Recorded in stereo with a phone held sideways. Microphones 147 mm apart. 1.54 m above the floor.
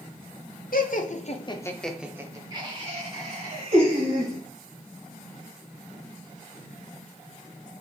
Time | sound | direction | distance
0.7 | laughter | 75° left (ahead or behind) | 0.8 m